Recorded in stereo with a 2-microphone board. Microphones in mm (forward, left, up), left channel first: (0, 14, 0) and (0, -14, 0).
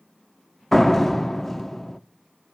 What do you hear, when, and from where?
0.7 s a door slam: 5° left (ahead or behind), 0.7 m